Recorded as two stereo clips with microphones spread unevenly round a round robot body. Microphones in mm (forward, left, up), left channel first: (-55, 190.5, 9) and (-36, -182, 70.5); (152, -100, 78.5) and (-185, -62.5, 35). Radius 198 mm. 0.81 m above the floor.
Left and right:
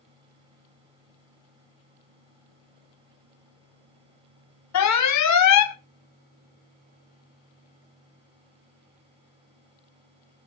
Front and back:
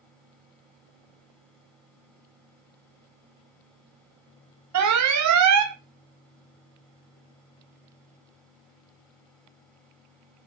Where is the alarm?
135° left, 1.0 m.